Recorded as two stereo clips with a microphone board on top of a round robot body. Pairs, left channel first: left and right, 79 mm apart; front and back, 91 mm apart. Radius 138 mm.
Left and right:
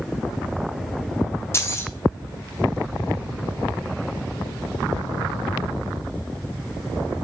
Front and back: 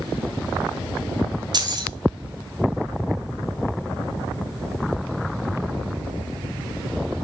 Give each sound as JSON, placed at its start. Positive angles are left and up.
{"t": 1.5, "sound": "keys jangling", "azimuth_deg": 145, "distance_m": 1.6}